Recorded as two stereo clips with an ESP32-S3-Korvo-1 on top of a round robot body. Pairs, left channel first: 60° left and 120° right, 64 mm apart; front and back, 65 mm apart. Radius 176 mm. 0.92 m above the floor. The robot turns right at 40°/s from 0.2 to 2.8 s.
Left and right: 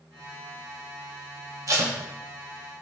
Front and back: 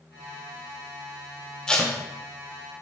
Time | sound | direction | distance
1.7 | tape being pulled | 80° right | 0.7 m